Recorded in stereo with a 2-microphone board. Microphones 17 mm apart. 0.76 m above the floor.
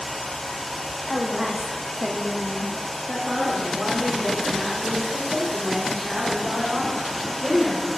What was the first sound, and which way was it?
A woman speaking, 10° right (ahead or behind).